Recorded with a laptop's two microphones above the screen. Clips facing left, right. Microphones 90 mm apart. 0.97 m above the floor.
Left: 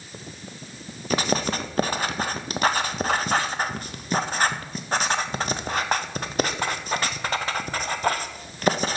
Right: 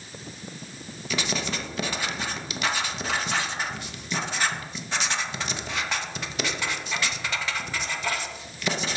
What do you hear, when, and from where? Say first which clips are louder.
1.1 s writing: left 6 dB; 45° left (ahead or behind), 0.5 m